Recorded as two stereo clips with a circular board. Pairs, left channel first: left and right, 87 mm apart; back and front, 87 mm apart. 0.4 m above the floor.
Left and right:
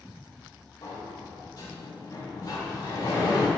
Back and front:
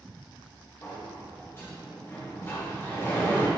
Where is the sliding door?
125° left, 1.8 m.